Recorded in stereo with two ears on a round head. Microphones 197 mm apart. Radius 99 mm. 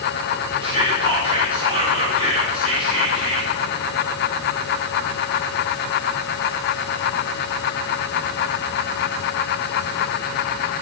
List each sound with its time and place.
0.6 s whispering: 25° right (ahead or behind), 0.7 m